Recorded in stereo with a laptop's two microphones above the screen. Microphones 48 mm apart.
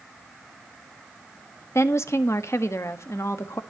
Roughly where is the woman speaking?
Left.